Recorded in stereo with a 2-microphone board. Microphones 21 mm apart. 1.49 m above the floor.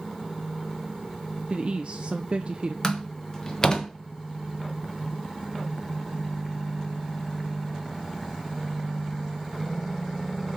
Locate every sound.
1.5 s a woman speaking: 45° right (ahead or behind), 0.5 m
2.8 s a door slam: 30° left (ahead or behind), 1.2 m